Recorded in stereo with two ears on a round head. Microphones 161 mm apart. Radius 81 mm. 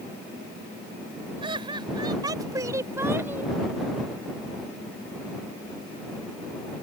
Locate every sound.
1.4 s laughter: 30° right (ahead or behind); by 3.5 s 10° right (ahead or behind)